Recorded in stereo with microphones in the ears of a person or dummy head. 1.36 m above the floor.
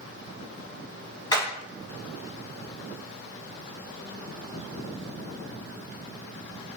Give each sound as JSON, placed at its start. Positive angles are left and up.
{"t": 1.3, "sound": "hammering", "side_deg": 30, "distance_m": 3.5}